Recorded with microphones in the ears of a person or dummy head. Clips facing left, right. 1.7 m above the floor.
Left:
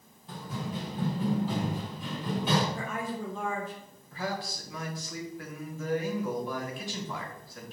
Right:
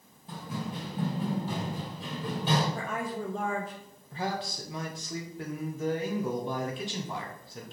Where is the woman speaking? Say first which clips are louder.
Right 1 dB; 35° right (ahead or behind), 0.6 m.